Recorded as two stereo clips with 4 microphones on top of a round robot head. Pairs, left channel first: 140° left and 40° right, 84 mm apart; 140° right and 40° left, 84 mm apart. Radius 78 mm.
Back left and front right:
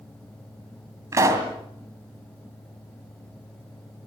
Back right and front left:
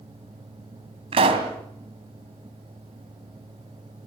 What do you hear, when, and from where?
1.1 s a pop: 20° left, 2.5 m